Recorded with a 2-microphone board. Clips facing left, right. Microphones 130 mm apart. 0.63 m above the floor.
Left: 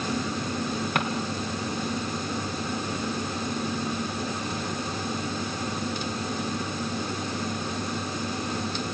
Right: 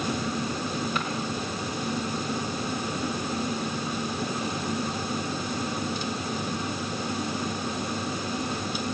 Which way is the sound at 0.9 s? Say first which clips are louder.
Left 3 dB; 65° left (ahead or behind).